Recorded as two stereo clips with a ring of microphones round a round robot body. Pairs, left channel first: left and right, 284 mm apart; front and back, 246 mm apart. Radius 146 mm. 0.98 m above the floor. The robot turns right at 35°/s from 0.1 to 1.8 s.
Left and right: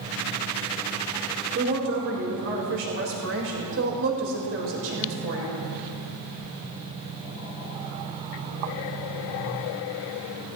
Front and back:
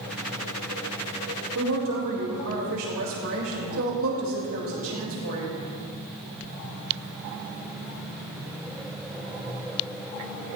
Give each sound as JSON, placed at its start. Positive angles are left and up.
{"t": 1.6, "sound": "a woman speaking", "azimuth_deg": -145, "distance_m": 4.0}